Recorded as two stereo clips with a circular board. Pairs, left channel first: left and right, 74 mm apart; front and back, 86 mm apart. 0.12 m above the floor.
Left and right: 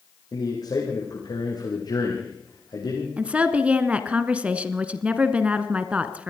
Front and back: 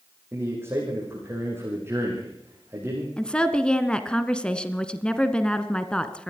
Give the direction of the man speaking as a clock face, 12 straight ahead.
8 o'clock.